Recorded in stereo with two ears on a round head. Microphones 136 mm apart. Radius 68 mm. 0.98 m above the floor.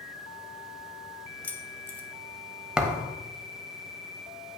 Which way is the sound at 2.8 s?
5° right (ahead or behind).